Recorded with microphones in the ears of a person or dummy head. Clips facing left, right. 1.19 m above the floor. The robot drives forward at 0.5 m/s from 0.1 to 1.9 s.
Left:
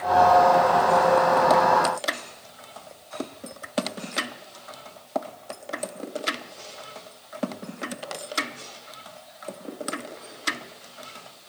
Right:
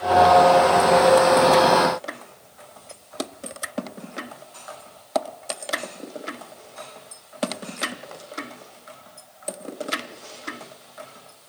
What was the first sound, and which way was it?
Only background noise.